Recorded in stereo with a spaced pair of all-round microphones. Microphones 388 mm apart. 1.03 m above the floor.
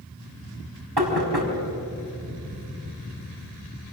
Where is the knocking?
90° right, 5 m.